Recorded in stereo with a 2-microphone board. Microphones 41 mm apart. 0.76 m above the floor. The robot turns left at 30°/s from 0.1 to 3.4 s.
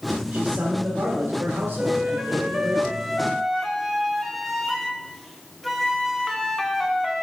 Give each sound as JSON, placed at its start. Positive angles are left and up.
{"t": 0.3, "sound": "a man speaking", "azimuth_deg": -55, "distance_m": 2.5}
{"t": 1.8, "sound": "a flute", "azimuth_deg": -140, "distance_m": 1.1}